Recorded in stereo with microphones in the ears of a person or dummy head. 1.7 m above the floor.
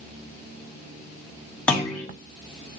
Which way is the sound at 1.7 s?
10° left (ahead or behind).